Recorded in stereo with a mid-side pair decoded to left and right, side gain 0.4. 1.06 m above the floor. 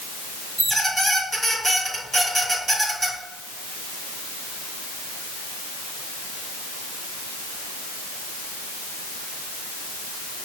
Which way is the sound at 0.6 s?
25° right.